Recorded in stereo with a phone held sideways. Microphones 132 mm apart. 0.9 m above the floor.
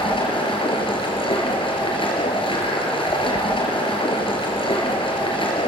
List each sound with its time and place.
0.0 s running water: 40° left (ahead or behind), 5 m